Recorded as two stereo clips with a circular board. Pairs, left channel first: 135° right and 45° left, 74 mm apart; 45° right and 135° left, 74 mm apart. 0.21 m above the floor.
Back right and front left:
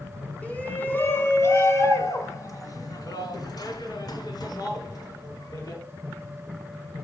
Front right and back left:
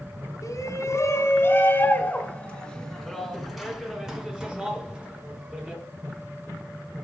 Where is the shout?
70° right, 2.5 m; by 5.8 s 155° right, 4.5 m.